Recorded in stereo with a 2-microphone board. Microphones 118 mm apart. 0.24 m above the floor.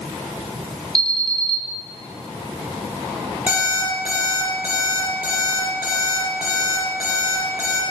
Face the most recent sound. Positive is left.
turn(degrees=-10)  # may be behind; listen again after turning